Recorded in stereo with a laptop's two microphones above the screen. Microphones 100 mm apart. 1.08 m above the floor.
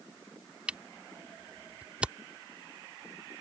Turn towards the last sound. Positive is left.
turn(degrees=-15)  # may be behind; listen again after turning